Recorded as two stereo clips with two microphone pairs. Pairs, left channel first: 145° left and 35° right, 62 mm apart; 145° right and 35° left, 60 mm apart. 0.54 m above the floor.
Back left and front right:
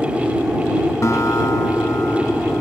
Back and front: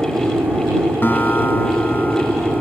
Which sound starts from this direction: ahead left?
An aircraft, at 0.0 s.